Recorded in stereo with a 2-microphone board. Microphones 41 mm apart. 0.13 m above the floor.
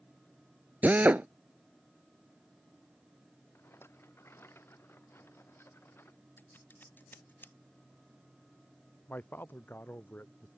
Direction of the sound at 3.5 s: 85° left.